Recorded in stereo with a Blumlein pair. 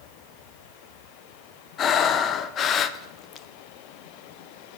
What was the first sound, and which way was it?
Breathing, 30° left.